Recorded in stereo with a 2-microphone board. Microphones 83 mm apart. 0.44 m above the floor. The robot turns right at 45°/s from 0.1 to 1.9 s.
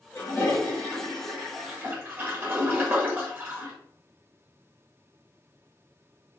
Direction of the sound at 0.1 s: 40° left (ahead or behind).